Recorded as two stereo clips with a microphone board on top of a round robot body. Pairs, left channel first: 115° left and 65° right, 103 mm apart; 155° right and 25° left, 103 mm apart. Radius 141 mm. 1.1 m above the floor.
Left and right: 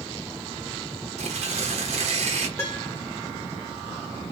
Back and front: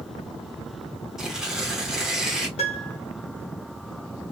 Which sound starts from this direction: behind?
A piano, at 2.6 s.